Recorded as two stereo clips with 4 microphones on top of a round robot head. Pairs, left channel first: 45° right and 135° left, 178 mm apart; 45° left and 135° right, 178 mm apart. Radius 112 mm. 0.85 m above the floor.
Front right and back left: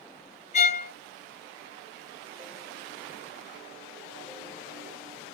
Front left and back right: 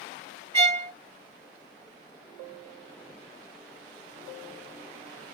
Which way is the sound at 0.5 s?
85° right.